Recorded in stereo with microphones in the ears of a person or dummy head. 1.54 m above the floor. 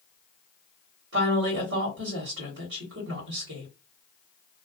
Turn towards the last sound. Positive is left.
turn(degrees=-80)